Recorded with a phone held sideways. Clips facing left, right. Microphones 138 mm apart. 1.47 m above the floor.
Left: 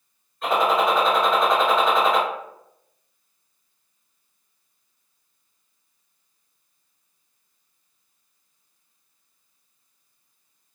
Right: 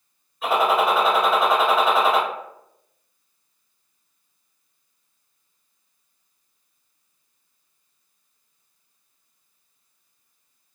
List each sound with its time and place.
0.4 s a gunshot: 5° right (ahead or behind), 1.6 m